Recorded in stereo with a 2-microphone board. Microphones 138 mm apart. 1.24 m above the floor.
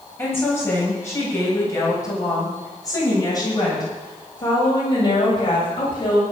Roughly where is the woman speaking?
Centre.